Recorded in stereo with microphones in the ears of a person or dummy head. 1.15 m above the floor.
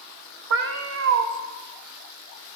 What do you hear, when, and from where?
0.5 s a cat meowing: 55° right (ahead or behind), 0.5 m